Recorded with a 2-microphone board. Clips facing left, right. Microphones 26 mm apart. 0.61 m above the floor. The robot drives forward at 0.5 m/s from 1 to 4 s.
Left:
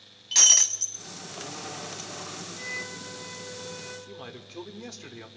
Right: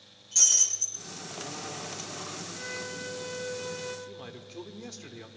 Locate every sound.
0.3 s breaking glass: 70° left (ahead or behind), 1.0 m
2.5 s a violin: 80° right, 6 m; by 4.0 s 85° right, 6 m
4.1 s a man speaking: 15° left (ahead or behind), 1.3 m